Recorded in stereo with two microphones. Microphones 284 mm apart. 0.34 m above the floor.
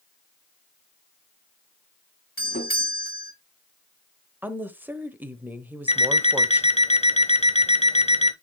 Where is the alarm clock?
25° left (ahead or behind), 0.8 m.